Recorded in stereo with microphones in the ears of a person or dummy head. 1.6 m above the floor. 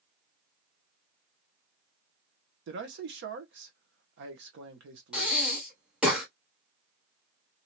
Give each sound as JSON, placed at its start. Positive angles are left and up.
{"t": 2.7, "sound": "a man speaking", "side_deg": -55, "distance_m": 1.0}
{"t": 5.1, "sound": "breathing", "side_deg": 0, "distance_m": 1.1}